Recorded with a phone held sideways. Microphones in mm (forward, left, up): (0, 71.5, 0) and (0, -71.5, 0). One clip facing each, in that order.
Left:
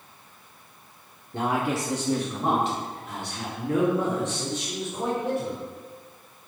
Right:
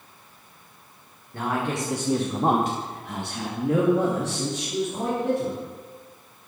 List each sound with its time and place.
1.3 s a man speaking: 25° left (ahead or behind), 0.9 m; by 5.6 s 85° right, 3 m